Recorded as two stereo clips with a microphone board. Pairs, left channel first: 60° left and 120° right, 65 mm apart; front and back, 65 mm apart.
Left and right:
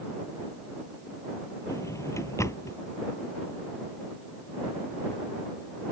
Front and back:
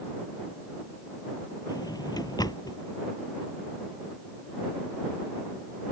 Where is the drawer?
15° left.